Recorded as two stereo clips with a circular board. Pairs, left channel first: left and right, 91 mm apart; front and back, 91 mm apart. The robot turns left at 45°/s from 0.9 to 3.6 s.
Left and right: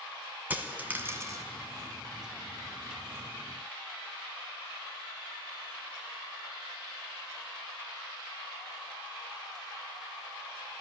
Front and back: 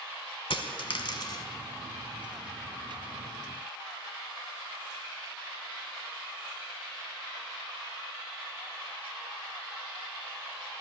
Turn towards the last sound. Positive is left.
turn(degrees=-140)